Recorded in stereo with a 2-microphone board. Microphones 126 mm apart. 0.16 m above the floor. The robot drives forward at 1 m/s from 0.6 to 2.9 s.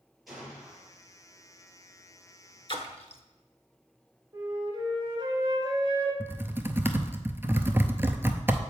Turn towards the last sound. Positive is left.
turn(degrees=-20)  # may be behind; listen again after turning